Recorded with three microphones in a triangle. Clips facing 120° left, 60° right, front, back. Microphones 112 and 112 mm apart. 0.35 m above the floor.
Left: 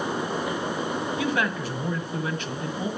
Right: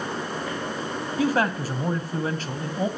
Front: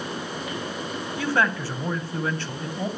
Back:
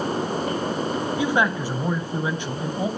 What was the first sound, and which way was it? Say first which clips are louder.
A man speaking: right 7 dB, even; 105° right.